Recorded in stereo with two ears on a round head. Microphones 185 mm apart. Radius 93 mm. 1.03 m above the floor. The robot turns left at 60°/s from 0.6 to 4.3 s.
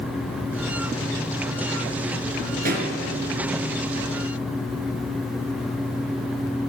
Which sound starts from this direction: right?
A pop, at 2.6 s.